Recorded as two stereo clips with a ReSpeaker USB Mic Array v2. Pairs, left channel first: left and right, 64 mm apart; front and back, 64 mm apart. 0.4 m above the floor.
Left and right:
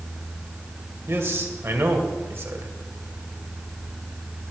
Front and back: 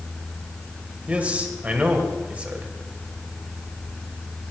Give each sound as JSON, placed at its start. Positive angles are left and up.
{"t": 1.1, "sound": "a man speaking", "azimuth_deg": -120, "distance_m": 2.0}